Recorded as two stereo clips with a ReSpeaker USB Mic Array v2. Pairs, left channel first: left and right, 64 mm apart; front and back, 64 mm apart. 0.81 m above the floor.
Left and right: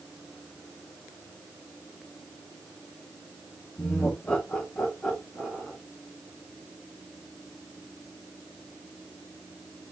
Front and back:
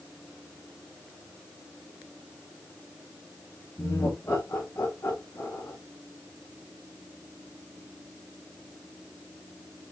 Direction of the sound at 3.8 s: 40° left.